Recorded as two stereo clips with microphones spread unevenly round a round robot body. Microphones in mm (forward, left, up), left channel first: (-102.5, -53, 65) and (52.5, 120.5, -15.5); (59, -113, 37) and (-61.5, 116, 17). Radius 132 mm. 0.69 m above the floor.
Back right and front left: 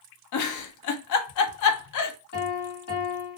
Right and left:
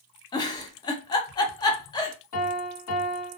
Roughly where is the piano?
Right.